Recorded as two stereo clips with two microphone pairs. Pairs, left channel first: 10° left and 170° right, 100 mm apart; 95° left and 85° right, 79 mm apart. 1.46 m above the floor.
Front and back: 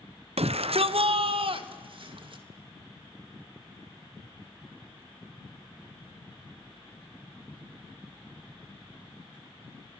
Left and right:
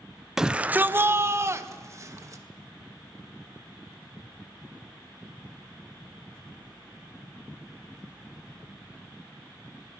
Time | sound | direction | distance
0.4 | a shout | 170° right | 0.6 m